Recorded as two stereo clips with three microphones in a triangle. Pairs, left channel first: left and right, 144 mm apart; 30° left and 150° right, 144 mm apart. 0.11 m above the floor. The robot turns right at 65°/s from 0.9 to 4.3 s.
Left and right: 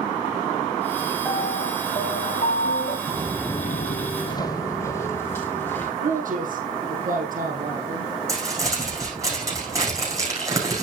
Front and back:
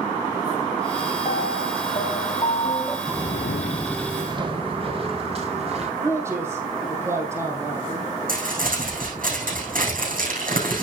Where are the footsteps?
55° right, 0.9 m; by 5.9 s 165° left, 3.5 m.